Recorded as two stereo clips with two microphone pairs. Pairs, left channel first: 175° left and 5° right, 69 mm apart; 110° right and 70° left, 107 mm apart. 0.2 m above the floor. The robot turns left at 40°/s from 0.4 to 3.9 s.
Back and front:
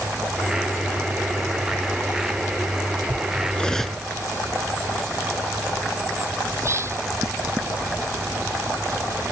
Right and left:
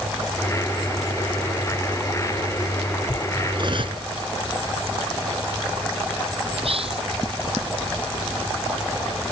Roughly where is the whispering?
Ahead left.